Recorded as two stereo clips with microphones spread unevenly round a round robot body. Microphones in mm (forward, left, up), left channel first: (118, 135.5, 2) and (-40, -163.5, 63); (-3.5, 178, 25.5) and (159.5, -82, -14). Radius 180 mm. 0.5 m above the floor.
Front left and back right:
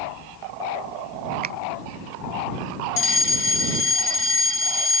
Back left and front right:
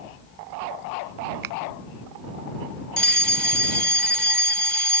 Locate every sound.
1.4 s a finger snap: 50° right
3.0 s a fire alarm: 30° left